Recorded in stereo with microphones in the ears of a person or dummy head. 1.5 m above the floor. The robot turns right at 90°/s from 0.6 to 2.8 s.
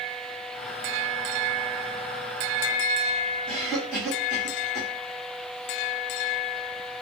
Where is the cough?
15° left (ahead or behind), 1.4 m.